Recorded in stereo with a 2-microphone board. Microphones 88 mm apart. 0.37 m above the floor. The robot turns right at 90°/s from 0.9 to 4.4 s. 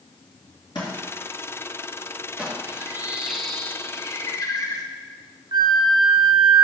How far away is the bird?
About 0.9 m.